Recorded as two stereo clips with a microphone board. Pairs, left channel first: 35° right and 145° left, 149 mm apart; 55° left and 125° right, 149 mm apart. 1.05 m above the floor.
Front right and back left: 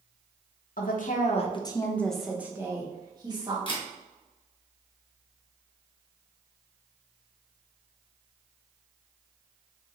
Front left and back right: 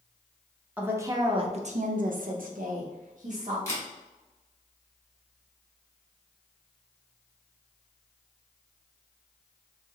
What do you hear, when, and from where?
0.8 s a woman speaking: 45° right, 0.6 m; by 3.6 s 155° right, 1.1 m
3.7 s a camera shutter: 5° right, 0.9 m